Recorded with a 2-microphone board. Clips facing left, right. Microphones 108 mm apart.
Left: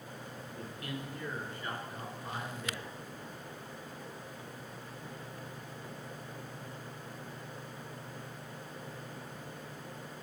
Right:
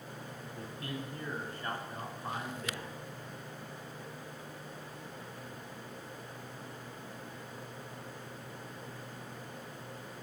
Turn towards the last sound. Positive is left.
turn(degrees=-55)  # may be behind; listen again after turning